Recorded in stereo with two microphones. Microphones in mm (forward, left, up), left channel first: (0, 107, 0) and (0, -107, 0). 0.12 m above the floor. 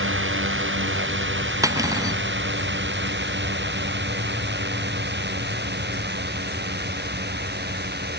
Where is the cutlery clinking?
15° right (ahead or behind).